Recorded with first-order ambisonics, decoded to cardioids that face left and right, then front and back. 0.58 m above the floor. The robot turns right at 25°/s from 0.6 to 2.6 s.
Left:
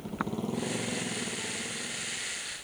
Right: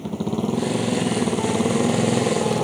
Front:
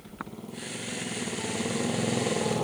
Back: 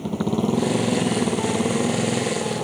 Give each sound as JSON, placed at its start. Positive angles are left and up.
{"t": 0.0, "sound": "a motorcycle", "azimuth_deg": -145}